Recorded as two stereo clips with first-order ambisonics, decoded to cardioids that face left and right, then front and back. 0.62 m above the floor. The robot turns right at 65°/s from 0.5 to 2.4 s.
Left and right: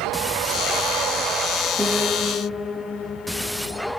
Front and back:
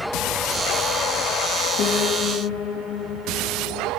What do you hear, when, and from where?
1.8 s a piano: 15° right, 1.3 m; by 3.9 s 25° left, 1.3 m